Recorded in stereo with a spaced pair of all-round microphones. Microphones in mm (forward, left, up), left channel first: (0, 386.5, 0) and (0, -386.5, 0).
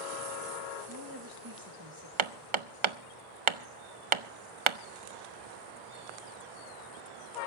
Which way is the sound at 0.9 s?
25° right (ahead or behind).